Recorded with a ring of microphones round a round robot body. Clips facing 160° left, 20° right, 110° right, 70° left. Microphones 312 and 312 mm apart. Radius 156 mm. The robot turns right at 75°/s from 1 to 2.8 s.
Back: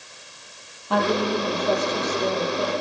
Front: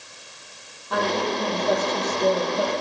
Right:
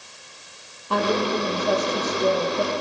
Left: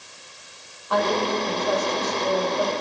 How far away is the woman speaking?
About 9.5 m.